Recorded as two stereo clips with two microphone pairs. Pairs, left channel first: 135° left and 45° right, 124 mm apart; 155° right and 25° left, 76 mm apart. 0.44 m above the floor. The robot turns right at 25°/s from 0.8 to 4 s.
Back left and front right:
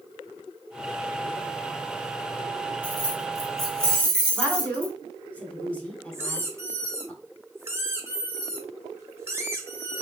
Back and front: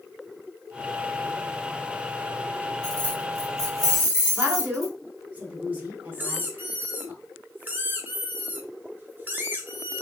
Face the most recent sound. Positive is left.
turn(degrees=0)